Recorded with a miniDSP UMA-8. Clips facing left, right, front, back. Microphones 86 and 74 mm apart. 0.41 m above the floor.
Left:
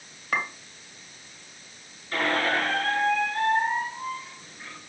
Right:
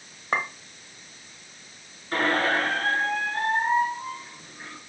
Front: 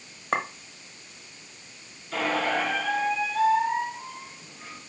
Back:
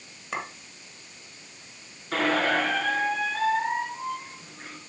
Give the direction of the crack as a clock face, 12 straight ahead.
I don't hear a crack.